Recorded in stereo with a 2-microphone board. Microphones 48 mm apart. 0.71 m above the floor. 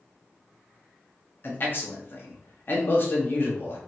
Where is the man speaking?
45° left (ahead or behind), 1.0 m.